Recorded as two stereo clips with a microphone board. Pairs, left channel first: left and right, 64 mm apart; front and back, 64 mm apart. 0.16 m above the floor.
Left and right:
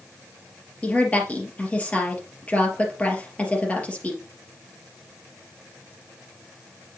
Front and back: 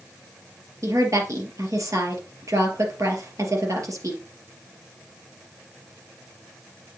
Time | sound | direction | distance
0.8 | a woman speaking | 160° left | 3 m